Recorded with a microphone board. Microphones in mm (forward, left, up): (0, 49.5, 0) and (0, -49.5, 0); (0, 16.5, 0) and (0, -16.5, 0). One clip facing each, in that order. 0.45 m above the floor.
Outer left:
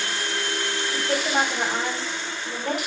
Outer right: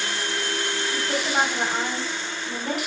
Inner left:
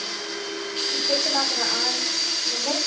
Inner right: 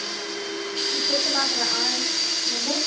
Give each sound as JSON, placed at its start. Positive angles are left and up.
{"t": 0.9, "sound": "a woman speaking", "side_deg": 55, "distance_m": 2.0}